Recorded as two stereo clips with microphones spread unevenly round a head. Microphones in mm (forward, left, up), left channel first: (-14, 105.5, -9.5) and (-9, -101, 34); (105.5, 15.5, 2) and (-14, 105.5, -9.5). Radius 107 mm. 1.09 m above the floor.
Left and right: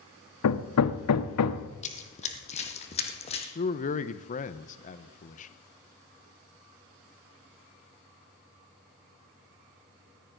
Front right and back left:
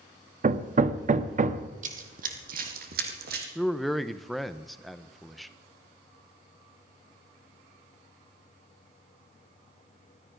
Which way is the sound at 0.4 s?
105° left.